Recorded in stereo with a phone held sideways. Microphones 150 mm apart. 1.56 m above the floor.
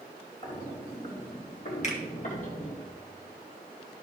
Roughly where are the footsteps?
Left.